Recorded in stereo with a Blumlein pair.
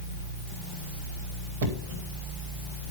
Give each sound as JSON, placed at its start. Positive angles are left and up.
{"t": 1.6, "sound": "knocking", "azimuth_deg": -60, "distance_m": 3.5}